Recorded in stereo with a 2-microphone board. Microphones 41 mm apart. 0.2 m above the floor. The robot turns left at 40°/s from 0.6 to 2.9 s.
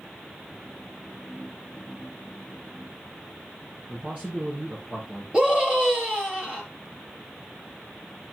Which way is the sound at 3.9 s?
35° right (ahead or behind).